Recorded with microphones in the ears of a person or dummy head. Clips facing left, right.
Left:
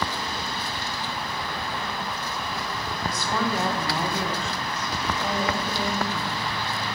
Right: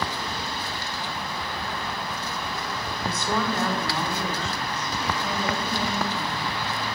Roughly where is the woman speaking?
Right.